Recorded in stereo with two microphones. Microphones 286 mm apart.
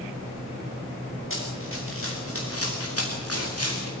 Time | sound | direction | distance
1.3 | running footsteps | 45° left (ahead or behind) | 7 m